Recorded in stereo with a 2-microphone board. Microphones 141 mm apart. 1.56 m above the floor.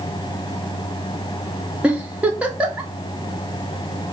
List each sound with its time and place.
1.8 s a giggle: 10° right (ahead or behind), 0.7 m